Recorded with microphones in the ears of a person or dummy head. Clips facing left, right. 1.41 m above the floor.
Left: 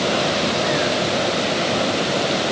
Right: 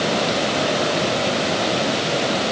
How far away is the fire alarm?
No fire alarm in this recording.